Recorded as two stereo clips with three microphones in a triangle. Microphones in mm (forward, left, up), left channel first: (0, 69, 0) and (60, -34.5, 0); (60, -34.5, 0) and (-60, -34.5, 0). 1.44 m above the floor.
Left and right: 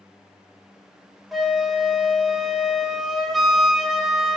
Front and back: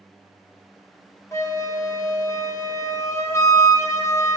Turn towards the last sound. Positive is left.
turn(degrees=25)